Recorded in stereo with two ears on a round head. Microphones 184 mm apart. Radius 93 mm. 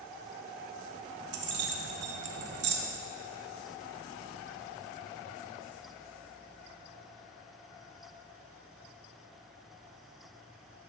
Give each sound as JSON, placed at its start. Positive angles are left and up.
{"t": 1.3, "sound": "keys jangling", "side_deg": -55, "distance_m": 0.8}